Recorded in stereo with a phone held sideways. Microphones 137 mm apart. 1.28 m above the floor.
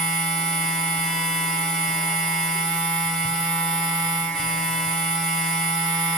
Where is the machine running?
5° left (ahead or behind), 1.5 m.